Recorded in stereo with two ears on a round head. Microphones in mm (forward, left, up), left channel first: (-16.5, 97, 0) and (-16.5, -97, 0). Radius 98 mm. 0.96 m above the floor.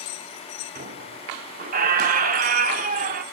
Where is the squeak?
40° right (ahead or behind), 0.7 m.